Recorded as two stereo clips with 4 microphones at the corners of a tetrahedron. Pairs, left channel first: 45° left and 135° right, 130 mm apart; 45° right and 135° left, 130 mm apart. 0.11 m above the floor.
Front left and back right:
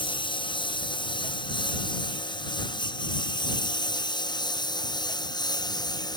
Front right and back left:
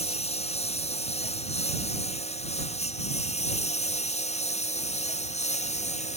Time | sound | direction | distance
0.0 | a lawn mower | 5° right | ?